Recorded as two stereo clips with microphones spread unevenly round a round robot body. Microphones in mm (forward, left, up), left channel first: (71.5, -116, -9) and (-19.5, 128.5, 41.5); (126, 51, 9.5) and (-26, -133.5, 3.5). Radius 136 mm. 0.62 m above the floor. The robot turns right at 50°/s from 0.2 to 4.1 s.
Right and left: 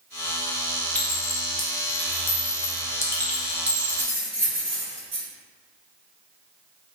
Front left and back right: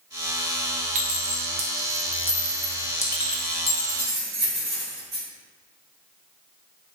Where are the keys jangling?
160° left, 1.7 m; by 5.2 s 175° left, 1.7 m.